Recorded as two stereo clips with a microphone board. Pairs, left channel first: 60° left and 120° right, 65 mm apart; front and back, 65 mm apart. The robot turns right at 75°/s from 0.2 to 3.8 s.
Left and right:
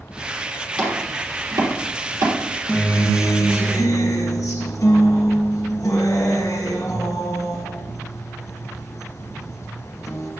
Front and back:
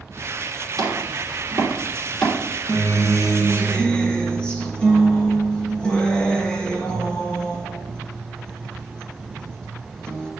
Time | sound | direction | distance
0.8 | chopping | 165° left | 3.5 m
2.7 | a guitar | 10° right | 2.5 m